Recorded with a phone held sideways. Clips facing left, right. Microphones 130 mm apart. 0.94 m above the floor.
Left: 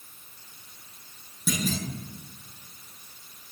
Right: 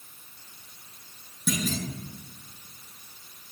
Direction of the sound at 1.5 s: 5° left (ahead or behind).